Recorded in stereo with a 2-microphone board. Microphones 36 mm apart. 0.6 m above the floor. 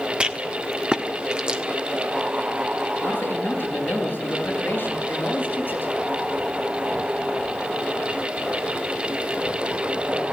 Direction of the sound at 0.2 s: 25° right (ahead or behind).